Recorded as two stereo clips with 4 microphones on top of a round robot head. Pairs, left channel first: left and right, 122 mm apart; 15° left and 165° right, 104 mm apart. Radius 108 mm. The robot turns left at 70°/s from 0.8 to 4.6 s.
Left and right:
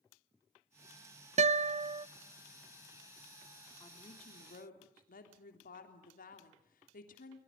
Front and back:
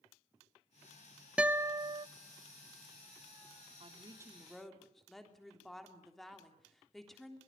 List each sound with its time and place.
1.4 s a guitar: 90° right, 0.5 m; by 2.1 s 135° right, 0.5 m
3.8 s a woman speaking: 155° left, 3.5 m; by 7.4 s 100° left, 3.5 m